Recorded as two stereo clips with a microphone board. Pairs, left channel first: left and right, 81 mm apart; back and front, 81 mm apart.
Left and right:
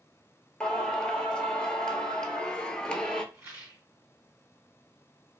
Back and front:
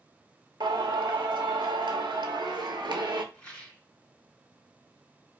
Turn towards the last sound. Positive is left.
turn(degrees=-120)